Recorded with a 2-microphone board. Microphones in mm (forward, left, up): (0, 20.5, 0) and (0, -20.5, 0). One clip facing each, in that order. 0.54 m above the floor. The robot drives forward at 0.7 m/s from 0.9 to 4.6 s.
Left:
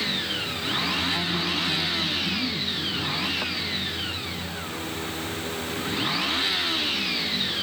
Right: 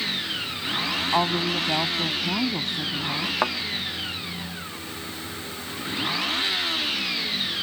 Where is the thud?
65° right (ahead or behind).